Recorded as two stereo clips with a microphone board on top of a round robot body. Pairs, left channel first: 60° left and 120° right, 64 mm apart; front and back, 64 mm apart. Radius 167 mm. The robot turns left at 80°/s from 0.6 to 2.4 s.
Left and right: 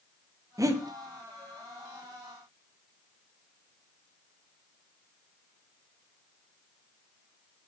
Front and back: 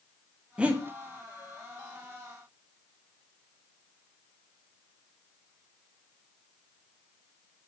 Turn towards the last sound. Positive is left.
turn(degrees=110)